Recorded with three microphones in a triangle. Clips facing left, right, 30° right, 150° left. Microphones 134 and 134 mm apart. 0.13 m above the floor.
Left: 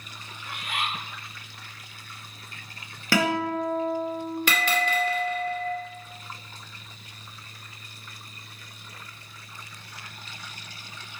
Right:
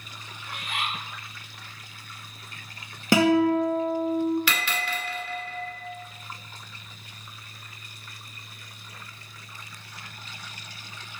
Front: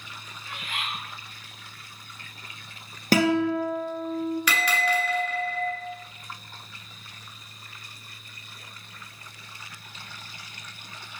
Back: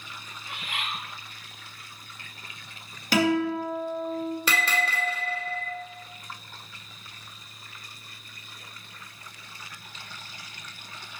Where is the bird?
85° left, 2.5 m.